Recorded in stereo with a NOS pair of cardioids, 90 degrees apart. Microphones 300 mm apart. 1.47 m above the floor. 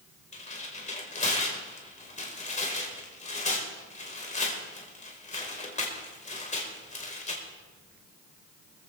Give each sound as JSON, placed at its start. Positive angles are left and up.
{"t": 0.3, "sound": "tearing paper", "azimuth_deg": 25, "distance_m": 4.5}